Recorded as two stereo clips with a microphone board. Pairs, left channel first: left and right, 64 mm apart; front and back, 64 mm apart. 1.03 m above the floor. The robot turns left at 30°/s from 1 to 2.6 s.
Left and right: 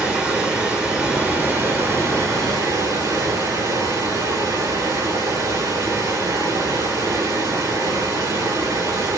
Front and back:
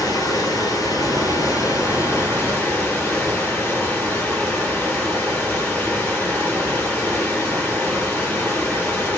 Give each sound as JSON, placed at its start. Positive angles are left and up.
{"t": 0.0, "sound": "running water", "azimuth_deg": -15, "distance_m": 2.5}